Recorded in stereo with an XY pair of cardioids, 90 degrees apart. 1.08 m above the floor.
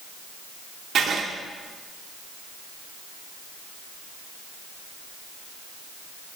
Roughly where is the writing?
Ahead right.